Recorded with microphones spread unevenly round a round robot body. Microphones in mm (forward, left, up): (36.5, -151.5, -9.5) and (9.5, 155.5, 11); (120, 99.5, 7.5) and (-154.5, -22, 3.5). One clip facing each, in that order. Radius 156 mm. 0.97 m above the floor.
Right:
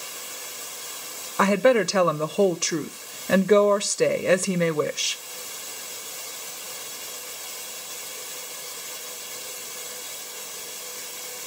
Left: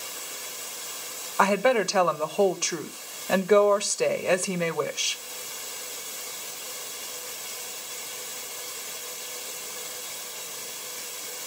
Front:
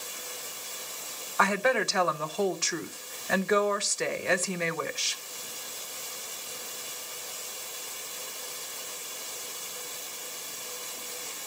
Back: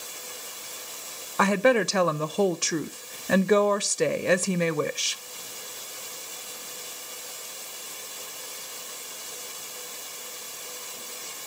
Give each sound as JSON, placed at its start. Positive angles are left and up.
{"t": 1.4, "sound": "a woman speaking", "azimuth_deg": -135, "distance_m": 0.5}